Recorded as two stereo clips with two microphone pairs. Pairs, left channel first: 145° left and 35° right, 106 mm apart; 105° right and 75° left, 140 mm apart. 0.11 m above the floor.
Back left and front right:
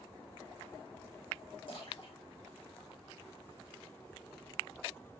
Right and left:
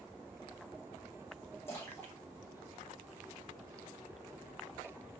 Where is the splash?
Straight behind, 8.5 m.